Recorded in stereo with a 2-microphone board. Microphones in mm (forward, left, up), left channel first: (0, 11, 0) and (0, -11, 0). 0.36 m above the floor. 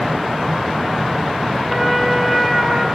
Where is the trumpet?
20° right (ahead or behind), 4 m.